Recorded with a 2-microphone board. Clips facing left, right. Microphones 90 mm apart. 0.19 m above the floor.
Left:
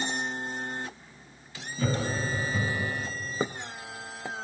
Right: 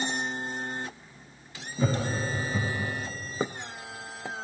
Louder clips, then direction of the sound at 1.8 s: Right 1 dB; 15° right (ahead or behind).